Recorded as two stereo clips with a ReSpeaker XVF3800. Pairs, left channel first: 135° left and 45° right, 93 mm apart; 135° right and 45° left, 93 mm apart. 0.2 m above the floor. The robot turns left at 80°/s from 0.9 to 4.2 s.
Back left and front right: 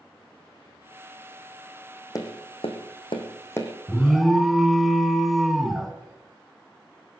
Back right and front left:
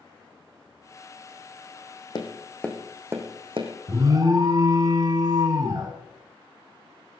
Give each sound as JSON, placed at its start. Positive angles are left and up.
{"t": 2.1, "sound": "tapping", "azimuth_deg": -175, "distance_m": 2.5}
{"t": 3.9, "sound": "an alarm", "azimuth_deg": 65, "distance_m": 1.8}